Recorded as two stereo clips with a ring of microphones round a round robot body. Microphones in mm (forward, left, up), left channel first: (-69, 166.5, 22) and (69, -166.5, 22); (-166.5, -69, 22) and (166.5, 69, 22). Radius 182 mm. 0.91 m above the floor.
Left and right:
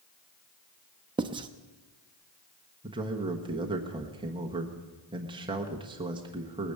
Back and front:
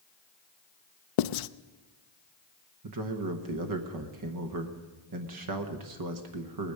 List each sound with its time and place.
1.2 s writing: 145° right, 0.5 m
2.8 s a man speaking: 5° left, 1.2 m